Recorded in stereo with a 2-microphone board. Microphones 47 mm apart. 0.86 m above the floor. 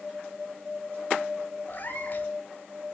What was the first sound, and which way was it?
A cat meowing, 40° left (ahead or behind).